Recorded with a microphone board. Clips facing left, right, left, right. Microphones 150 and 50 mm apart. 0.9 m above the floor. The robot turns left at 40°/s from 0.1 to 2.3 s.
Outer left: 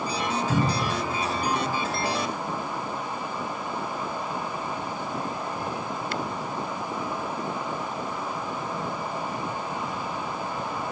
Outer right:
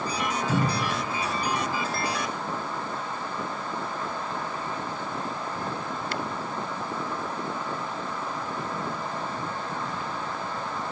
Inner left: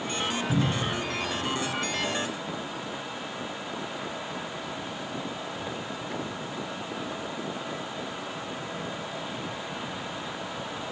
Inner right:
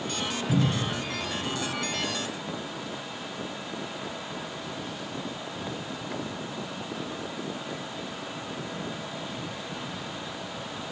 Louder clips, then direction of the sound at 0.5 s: Outer left 1 dB, inner right 3 dB; 20° right (ahead or behind).